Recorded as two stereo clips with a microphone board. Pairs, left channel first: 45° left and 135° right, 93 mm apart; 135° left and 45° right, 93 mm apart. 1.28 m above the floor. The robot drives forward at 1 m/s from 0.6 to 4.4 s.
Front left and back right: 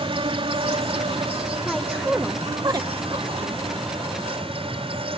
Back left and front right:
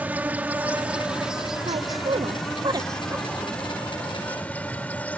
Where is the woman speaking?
45° right; by 3.6 s 130° right.